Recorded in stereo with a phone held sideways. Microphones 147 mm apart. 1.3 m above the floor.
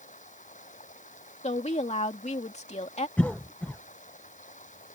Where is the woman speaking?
55° left (ahead or behind).